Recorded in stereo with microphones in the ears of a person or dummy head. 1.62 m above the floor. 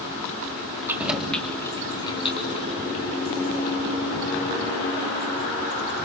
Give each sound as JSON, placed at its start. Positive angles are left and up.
{"t": 0.9, "sound": "keys jangling", "side_deg": -10, "distance_m": 3.0}